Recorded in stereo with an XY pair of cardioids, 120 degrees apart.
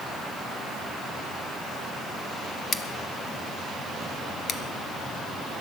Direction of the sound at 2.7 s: 40° left.